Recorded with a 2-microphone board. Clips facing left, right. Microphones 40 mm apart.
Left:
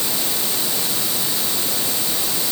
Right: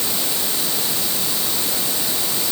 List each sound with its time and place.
Only background noise.